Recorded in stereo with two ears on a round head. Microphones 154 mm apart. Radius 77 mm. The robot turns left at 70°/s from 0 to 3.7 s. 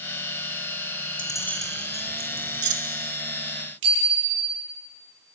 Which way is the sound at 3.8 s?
80° right.